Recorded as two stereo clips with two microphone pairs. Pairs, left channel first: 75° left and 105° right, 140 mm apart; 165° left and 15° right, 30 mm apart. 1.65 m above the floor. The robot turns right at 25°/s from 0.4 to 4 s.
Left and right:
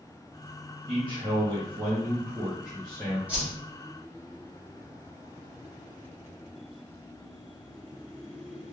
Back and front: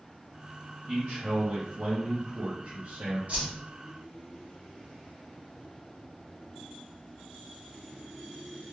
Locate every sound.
0.9 s a man speaking: 60° right, 1.1 m; by 3.2 s straight ahead, 1.1 m
3.3 s a whoosh: 25° right, 1.8 m; by 3.5 s 20° right, 1.8 m